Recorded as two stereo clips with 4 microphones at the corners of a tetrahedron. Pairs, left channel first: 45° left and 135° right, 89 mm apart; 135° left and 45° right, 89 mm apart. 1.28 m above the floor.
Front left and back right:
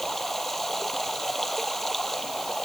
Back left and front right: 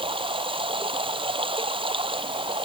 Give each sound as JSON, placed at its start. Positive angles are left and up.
{"t": 0.0, "sound": "running water", "azimuth_deg": -40}